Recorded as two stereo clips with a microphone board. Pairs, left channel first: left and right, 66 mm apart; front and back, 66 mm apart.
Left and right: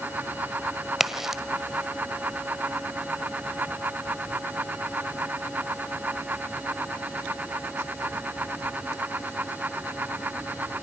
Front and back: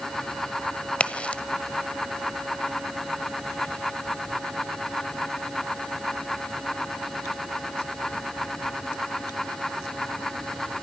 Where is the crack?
20° right, 1.4 m.